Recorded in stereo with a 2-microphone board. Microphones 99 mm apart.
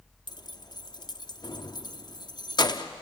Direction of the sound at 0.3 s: 45° left (ahead or behind).